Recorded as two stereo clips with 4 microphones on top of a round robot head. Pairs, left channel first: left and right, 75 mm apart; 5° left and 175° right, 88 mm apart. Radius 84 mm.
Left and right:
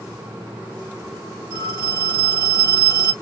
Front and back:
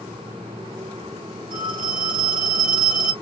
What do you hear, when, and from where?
1.5 s a phone ringing: 120° right, 2 m